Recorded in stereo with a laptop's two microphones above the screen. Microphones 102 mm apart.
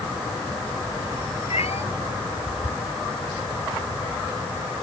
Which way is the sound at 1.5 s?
85° left.